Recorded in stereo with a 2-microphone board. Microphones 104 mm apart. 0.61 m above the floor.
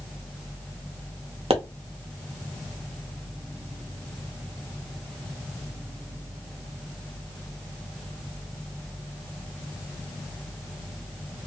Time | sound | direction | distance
1.5 | a pop | 85° right | 0.6 m